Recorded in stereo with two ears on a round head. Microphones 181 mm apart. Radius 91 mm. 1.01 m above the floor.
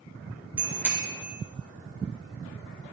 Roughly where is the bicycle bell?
Centre.